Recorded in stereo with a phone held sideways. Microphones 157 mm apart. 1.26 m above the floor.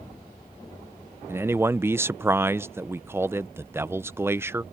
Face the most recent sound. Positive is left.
turn(degrees=-15)  # may be behind; listen again after turning